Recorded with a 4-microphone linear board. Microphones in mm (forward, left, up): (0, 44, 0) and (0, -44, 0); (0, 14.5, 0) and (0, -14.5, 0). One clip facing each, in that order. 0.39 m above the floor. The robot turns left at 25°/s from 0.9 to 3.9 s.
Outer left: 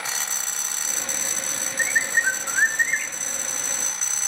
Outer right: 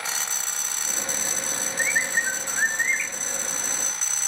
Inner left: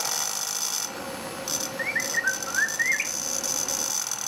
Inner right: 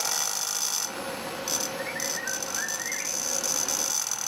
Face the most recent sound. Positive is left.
turn(degrees=80)